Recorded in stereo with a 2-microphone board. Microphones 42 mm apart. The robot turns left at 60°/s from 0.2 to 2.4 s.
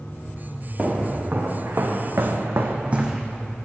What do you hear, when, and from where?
0.8 s footsteps: 20° right (ahead or behind), 2.5 m; by 3.2 s 10° right (ahead or behind), 1.0 m